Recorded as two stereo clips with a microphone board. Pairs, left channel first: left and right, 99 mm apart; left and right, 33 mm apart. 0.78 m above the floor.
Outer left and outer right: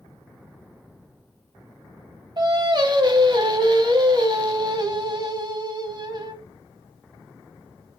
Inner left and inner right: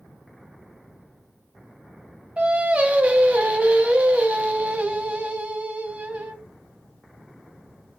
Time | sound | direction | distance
2.4 | singing | 45° right (ahead or behind) | 0.8 m